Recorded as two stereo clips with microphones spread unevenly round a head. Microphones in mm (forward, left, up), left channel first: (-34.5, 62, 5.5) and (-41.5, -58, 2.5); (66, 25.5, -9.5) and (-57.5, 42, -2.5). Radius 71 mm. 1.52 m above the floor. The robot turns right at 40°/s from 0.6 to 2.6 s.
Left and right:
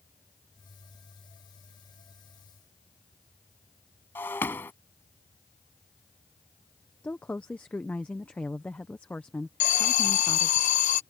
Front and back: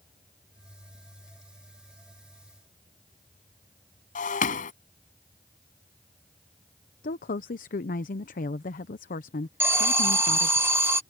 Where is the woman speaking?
5° left.